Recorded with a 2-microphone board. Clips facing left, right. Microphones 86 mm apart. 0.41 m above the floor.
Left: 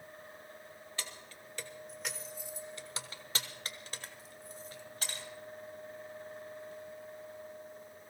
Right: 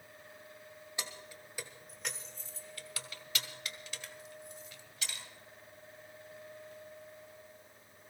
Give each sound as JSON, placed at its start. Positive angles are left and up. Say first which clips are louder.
{"t": 1.0, "sound": "keys jangling", "louder": "right 2 dB", "side_deg": -15, "distance_m": 1.4}